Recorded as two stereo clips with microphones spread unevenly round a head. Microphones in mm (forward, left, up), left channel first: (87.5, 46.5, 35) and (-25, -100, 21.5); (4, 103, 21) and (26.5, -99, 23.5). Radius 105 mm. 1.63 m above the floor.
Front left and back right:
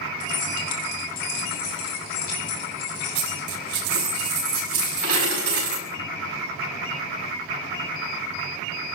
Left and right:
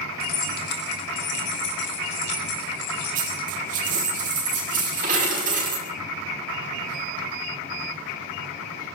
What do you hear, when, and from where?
0.2 s keys jangling: 80° left, 2.5 m; by 3.5 s 85° left, 6 m
3.1 s a dropped coin: 135° right, 5.5 m